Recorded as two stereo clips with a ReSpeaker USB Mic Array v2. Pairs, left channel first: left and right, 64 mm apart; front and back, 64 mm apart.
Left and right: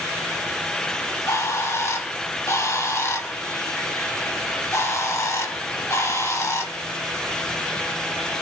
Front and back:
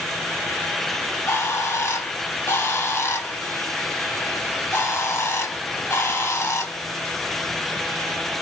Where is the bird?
50° left, 0.8 m.